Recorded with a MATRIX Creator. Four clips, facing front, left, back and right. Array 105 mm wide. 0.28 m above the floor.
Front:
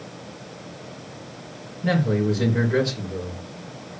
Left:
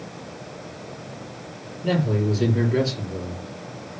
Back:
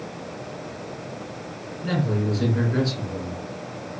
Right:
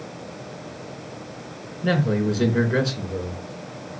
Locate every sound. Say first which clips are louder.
1.8 s a man speaking: right 1 dB, front 4 dB; 65° right, 3.5 m